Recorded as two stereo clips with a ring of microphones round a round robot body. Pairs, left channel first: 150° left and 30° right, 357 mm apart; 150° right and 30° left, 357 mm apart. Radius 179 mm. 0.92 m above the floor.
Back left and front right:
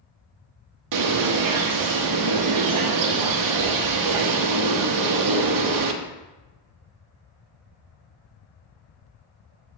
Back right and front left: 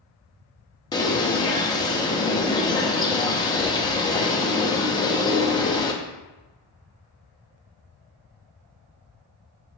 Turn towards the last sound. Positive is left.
turn(degrees=-70)